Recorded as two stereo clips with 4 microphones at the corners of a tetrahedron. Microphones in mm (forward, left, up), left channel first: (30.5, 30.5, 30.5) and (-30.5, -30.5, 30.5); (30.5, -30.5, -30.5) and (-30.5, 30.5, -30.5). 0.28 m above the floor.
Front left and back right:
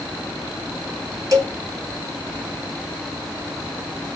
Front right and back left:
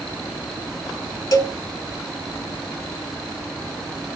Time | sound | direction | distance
1.3 | a cowbell | 90° right | 0.8 m